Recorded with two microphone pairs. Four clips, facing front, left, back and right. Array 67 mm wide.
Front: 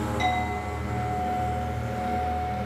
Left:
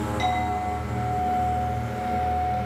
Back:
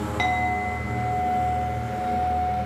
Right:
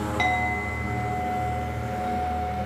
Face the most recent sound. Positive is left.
turn(degrees=-145)